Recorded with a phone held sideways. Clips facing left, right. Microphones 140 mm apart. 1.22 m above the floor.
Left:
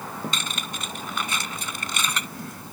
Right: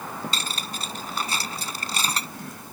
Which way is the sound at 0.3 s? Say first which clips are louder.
Even; 35° right (ahead or behind).